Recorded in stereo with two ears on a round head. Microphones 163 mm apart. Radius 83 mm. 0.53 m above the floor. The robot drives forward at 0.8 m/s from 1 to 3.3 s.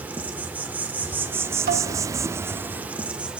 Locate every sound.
0.0 s an insect: 10° right (ahead or behind), 0.9 m; by 3.4 s 5° right (ahead or behind), 1.1 m
1.7 s dishes clattering: 55° right (ahead or behind), 2.5 m; by 1.9 s 60° right (ahead or behind), 2.5 m